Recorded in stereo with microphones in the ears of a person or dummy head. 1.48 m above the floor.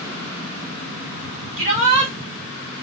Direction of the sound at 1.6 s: 40° right (ahead or behind).